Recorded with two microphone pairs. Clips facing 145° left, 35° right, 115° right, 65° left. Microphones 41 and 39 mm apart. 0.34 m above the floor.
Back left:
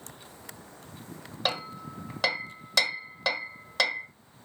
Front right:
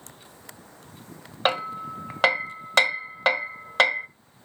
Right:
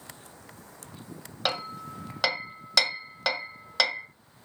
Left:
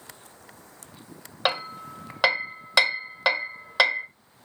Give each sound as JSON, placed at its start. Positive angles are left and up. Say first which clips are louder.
{"t": 1.4, "sound": "hammering", "louder": "front right 7 dB, left 4 dB", "azimuth_deg": -5, "distance_m": 1.5}